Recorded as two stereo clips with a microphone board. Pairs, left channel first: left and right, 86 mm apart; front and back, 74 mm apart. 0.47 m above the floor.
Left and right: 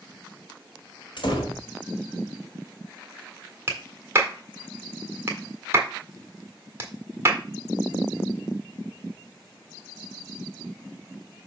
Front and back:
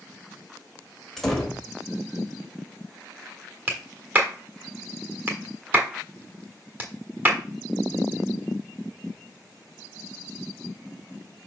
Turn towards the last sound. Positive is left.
turn(degrees=-135)